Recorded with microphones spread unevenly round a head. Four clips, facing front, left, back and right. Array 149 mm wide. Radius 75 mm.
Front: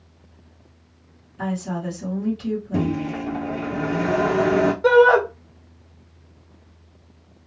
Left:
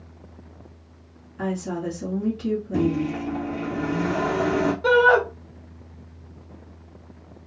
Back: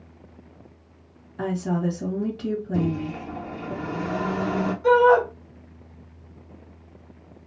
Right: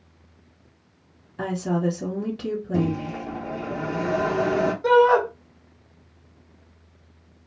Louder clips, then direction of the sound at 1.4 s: Right 3 dB, back 2 dB; 135° right.